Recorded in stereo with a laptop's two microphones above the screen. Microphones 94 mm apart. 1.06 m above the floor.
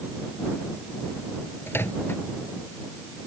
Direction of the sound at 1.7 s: 25° left (ahead or behind).